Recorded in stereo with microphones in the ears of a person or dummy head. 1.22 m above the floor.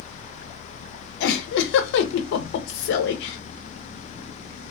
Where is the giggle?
65° left (ahead or behind), 0.6 m.